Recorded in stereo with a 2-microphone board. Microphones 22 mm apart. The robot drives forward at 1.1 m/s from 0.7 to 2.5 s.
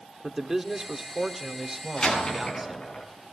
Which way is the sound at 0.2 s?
15° right (ahead or behind).